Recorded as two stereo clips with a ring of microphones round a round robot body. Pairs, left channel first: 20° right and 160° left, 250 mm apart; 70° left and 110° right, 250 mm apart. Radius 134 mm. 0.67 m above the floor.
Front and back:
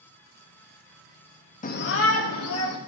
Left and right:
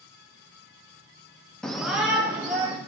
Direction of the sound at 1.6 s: 15° right.